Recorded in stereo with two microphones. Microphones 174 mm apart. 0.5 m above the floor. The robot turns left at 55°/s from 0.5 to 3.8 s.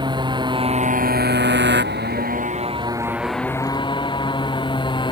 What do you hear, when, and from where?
0.0 s a motorcycle: 25° right; by 5.1 s 155° left